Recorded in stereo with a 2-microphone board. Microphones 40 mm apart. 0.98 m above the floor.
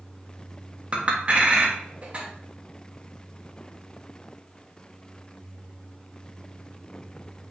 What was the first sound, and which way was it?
A clink, 35° right (ahead or behind).